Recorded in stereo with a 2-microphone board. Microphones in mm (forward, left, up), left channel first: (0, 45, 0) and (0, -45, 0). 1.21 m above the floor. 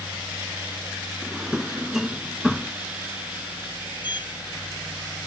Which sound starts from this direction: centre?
A drawer, at 1.2 s.